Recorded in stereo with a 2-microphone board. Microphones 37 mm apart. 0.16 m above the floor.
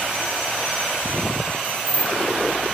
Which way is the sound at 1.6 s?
35° left (ahead or behind).